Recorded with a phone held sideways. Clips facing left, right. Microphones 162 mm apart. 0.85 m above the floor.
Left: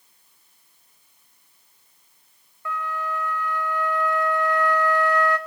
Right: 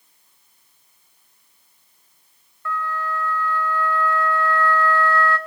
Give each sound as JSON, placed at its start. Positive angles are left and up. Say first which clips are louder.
{"t": 2.6, "sound": "a flute", "louder": "right 2 dB", "side_deg": 15, "distance_m": 2.5}